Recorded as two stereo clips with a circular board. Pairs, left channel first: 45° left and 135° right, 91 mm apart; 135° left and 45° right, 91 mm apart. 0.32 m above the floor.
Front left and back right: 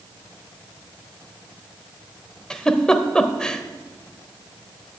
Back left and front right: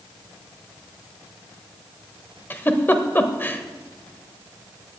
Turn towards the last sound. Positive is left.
turn(degrees=115)